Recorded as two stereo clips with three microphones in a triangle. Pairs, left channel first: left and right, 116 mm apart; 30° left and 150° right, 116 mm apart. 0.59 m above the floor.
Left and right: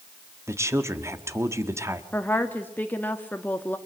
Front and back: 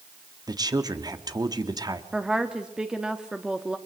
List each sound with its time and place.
0.5 s a woman speaking: 135° right, 1.3 m
2.1 s a woman speaking: 135° left, 1.1 m